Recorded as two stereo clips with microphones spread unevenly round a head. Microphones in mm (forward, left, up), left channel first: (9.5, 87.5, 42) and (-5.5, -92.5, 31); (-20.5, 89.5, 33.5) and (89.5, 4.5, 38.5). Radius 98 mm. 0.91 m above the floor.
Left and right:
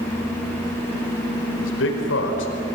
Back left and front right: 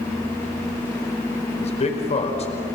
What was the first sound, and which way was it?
A man speaking, 100° left.